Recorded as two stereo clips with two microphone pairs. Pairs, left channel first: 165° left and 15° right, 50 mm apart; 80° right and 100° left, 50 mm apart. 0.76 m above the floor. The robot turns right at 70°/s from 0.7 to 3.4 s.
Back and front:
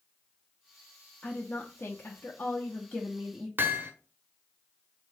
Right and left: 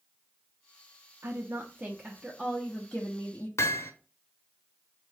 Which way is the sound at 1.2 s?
95° left.